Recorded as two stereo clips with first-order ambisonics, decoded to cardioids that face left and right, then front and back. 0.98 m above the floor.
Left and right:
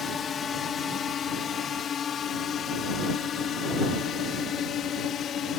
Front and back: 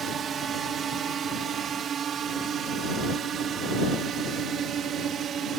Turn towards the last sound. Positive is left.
turn(degrees=135)